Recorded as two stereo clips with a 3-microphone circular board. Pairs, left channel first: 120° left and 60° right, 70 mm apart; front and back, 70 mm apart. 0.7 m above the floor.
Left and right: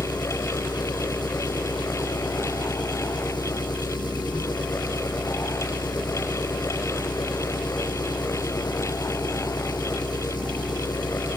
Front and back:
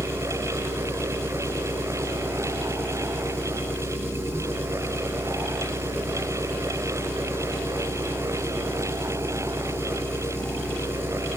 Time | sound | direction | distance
0.0 | an engine running | 125° left | 5 m